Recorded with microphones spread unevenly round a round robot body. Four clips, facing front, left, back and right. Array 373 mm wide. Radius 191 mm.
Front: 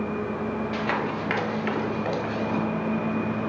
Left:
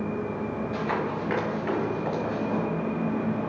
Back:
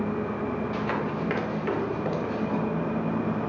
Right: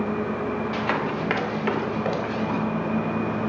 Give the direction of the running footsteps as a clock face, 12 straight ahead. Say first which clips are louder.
Right 3 dB, front 1 dB; 2 o'clock.